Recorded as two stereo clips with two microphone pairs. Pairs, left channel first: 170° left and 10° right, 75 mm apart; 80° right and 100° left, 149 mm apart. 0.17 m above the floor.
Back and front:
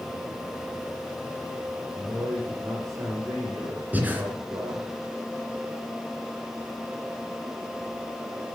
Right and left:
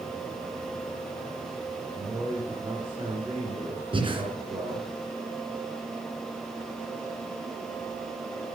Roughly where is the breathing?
Ahead left.